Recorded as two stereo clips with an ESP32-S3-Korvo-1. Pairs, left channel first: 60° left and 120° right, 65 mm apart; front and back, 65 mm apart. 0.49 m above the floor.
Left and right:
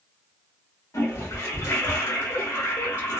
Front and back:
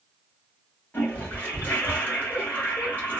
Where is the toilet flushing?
55° left, 1.5 m.